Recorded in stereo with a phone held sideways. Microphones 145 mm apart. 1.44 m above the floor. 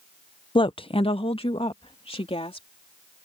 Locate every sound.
0.6 s a woman speaking: 35° left (ahead or behind); by 2.7 s 40° left (ahead or behind)